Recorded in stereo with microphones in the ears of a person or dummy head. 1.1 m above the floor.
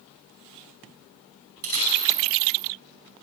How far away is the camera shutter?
About 5.5 m.